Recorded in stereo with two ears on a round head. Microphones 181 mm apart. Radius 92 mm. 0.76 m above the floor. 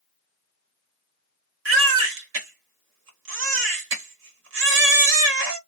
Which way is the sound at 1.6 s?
65° right (ahead or behind).